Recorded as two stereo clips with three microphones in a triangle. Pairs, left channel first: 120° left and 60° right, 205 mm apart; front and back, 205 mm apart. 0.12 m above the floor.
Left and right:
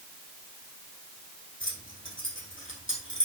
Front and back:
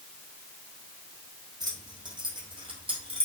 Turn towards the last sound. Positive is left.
turn(degrees=120)